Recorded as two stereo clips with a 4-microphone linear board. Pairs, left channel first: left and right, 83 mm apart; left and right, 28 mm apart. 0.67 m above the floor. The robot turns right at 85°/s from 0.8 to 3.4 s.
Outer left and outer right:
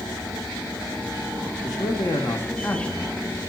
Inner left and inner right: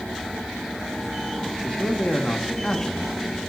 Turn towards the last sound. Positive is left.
turn(degrees=-150)